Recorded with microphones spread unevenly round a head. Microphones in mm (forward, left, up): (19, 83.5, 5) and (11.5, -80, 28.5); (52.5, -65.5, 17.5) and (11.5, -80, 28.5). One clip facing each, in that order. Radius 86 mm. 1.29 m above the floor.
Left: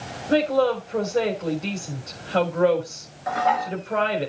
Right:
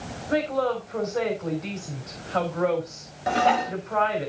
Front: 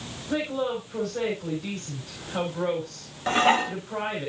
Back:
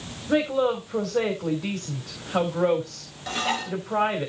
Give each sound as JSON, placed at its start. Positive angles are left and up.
{"t": 0.3, "sound": "a woman speaking", "azimuth_deg": 145, "distance_m": 3.5}
{"t": 3.3, "sound": "dishes clattering", "azimuth_deg": -40, "distance_m": 1.3}